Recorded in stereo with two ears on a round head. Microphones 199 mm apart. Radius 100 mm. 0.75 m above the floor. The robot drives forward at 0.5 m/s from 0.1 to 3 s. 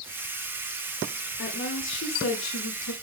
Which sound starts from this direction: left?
A woman speaking, at 1.4 s.